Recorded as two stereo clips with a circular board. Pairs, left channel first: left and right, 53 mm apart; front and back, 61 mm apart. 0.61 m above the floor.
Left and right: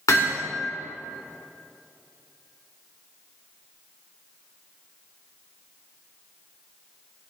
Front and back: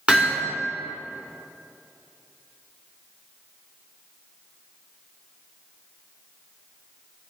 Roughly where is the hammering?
Left.